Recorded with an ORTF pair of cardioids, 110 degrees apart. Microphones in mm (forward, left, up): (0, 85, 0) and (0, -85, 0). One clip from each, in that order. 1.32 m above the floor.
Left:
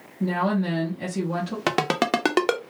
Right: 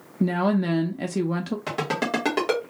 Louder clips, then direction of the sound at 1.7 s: Left 4 dB; 55° left.